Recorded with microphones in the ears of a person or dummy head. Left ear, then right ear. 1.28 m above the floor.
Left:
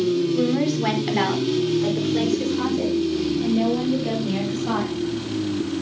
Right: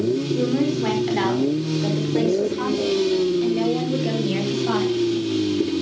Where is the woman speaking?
25° left (ahead or behind), 4.5 m; by 4.9 s 25° right (ahead or behind), 8.5 m.